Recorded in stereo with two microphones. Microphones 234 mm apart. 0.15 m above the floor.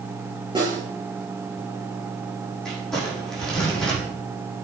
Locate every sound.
0.6 s a snare drum: 20° right (ahead or behind), 8 m
2.6 s crumpling: centre (ahead or behind), 5.5 m